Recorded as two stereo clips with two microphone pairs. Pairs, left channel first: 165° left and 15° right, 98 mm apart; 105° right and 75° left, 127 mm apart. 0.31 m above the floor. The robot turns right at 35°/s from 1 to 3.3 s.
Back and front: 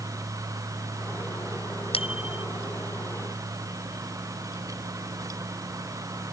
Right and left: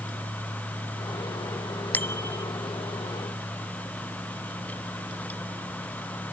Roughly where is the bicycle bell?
Behind.